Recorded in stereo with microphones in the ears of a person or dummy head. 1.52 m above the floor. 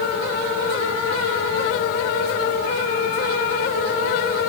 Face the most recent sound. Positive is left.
No sound to turn to.